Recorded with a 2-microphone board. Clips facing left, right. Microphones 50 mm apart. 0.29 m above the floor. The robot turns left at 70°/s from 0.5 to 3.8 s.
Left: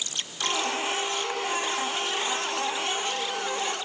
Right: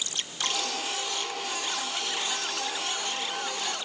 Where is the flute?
I don't hear a flute.